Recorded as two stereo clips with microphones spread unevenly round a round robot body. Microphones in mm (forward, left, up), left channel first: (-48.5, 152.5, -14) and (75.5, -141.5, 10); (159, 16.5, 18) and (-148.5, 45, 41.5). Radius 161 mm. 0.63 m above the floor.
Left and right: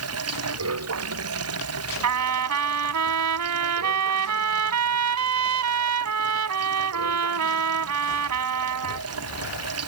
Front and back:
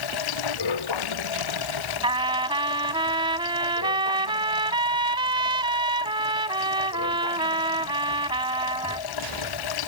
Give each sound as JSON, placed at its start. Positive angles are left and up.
{"t": 0.0, "sound": "running water", "azimuth_deg": -20}
{"t": 2.0, "sound": "a trumpet", "azimuth_deg": -110}